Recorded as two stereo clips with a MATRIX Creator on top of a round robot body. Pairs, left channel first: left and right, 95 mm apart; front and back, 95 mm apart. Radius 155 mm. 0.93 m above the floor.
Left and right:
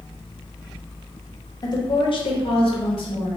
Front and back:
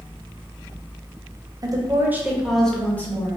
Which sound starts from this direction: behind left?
A woman speaking, at 1.6 s.